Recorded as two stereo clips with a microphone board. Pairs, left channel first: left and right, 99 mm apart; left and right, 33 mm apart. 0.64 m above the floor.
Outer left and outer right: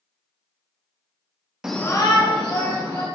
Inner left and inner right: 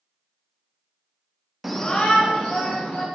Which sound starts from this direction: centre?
A shout, at 1.6 s.